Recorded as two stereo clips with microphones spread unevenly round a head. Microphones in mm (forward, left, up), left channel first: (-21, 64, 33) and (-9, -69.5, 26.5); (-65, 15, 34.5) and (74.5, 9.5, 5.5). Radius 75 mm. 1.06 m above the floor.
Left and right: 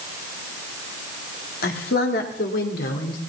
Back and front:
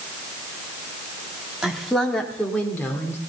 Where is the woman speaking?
85° left, 2 m; by 3.2 s 100° left, 3 m.